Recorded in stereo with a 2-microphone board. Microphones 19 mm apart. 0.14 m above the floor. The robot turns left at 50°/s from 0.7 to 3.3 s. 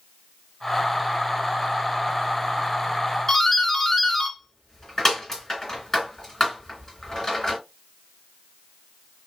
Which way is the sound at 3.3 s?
30° left (ahead or behind).